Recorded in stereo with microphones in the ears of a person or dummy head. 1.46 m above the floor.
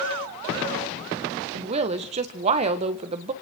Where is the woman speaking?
40° right (ahead or behind), 1.7 m.